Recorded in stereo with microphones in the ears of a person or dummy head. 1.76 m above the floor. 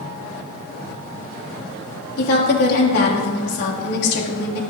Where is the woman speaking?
55° left (ahead or behind), 3 m.